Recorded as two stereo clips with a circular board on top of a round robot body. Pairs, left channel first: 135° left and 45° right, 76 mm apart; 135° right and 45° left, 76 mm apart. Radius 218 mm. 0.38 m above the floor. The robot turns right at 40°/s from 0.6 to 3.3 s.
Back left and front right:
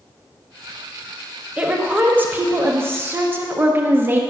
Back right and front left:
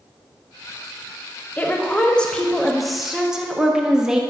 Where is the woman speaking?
95° right, 1.0 m; by 4.2 s 25° right, 1.0 m.